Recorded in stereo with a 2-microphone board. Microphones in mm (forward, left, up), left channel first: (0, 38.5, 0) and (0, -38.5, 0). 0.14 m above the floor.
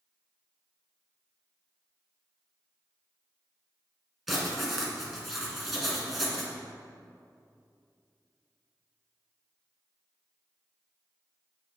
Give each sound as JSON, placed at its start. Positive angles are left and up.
{"t": 4.3, "sound": "writing", "side_deg": 0, "distance_m": 1.7}